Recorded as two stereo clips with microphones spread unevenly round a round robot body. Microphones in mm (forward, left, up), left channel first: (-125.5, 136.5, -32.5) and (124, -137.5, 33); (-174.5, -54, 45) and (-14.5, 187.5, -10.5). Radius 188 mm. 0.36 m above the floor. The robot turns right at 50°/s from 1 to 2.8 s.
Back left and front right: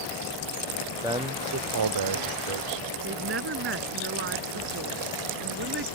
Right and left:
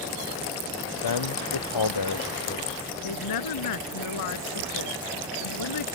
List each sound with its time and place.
1.0 s a man speaking: 130° right; by 2.9 s 45° right
3.0 s a woman speaking: 105° right